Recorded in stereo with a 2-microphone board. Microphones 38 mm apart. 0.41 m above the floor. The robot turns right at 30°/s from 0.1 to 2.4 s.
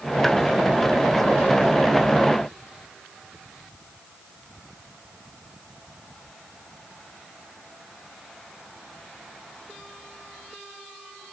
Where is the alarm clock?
I don't hear an alarm clock.